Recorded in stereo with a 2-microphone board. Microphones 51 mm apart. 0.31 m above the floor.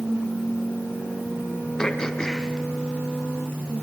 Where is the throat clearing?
10° left (ahead or behind), 2.5 m.